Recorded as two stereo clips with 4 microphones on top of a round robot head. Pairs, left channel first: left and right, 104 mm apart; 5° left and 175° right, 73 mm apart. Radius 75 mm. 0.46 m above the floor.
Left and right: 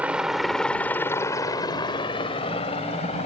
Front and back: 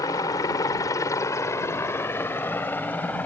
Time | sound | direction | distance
0.0 | a helicopter | 15° right | ?